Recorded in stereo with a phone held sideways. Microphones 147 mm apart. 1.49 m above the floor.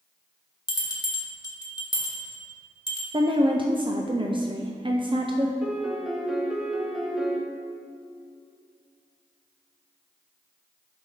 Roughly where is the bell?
Left.